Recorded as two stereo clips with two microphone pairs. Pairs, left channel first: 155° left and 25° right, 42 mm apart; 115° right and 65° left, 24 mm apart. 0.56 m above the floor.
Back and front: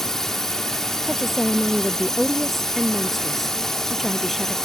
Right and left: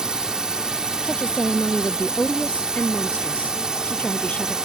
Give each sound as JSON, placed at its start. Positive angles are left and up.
{"t": 0.0, "sound": "a drone", "azimuth_deg": 85}
{"t": 1.0, "sound": "a woman speaking", "azimuth_deg": -110}